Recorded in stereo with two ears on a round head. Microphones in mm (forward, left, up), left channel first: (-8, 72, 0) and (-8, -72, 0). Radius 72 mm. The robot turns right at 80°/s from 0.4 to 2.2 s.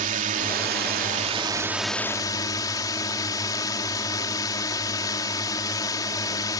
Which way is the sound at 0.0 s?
115° right.